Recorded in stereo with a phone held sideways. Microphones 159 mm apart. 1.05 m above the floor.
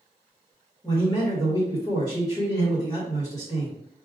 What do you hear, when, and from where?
0.8 s a man speaking: 20° left (ahead or behind), 1.5 m